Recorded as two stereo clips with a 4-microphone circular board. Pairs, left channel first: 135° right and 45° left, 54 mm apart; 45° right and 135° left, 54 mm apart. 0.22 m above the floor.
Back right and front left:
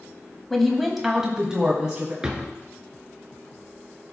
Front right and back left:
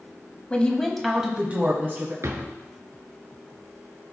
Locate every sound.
0.5 s a woman speaking: 60° right, 1.0 m; by 2.1 s 110° left, 1.4 m
2.2 s a drawer: 115° left, 1.0 m